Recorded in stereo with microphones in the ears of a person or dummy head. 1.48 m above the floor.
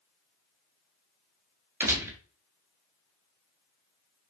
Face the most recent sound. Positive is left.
turn(degrees=-15)  # may be behind; listen again after turning